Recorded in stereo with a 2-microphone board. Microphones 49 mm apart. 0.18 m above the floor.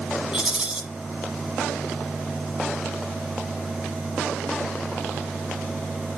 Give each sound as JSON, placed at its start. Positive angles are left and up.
{"t": 0.3, "sound": "a rattle", "side_deg": -20, "distance_m": 1.0}